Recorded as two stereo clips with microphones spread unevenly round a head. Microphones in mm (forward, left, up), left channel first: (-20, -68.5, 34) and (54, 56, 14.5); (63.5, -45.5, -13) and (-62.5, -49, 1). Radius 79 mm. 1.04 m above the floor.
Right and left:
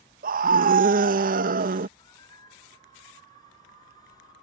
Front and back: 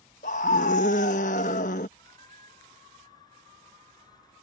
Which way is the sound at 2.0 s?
55° right.